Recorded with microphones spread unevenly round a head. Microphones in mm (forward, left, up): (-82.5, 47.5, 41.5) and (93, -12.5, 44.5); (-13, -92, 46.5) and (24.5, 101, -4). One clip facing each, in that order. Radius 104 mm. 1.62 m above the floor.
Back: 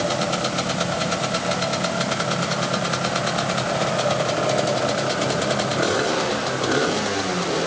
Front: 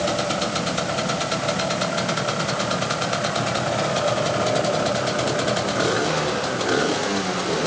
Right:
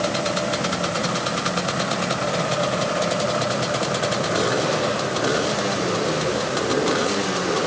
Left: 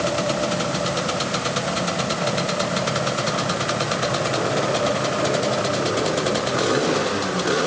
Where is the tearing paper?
No tearing paper in this recording.